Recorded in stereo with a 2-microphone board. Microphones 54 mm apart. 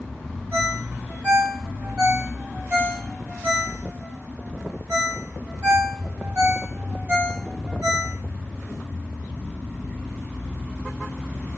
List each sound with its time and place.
0.5 s a ringtone: 35° right (ahead or behind), 1.0 m